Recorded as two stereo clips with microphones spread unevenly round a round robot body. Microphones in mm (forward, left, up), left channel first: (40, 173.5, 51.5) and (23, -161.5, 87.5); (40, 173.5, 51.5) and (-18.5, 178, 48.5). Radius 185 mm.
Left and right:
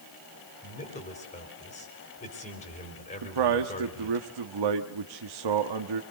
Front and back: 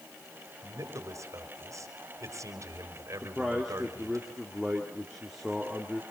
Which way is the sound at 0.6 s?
155° left.